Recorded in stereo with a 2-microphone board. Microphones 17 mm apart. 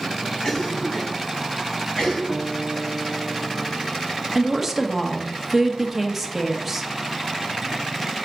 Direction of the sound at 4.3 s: 5° right (ahead or behind).